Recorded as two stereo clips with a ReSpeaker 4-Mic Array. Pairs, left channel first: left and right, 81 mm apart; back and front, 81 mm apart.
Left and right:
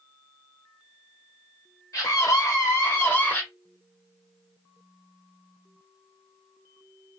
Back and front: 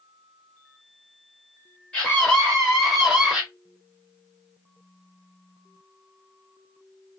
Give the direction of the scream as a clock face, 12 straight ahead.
9 o'clock.